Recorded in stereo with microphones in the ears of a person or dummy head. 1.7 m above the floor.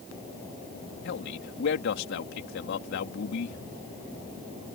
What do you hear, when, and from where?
1.1 s a man speaking: 60° left (ahead or behind)